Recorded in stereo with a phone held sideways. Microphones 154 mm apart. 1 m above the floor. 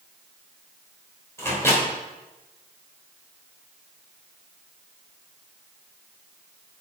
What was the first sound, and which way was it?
A microwave, 15° left (ahead or behind).